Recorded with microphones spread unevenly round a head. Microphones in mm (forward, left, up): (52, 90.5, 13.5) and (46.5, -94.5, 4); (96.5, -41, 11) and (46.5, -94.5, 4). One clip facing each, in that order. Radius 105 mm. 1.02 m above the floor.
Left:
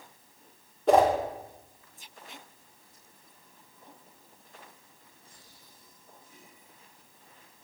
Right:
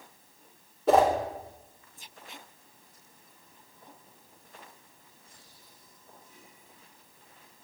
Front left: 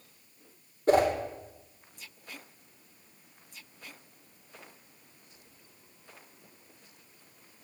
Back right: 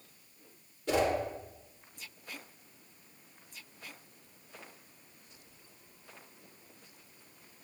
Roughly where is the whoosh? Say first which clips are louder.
Left 1 dB, front left 6 dB; ahead.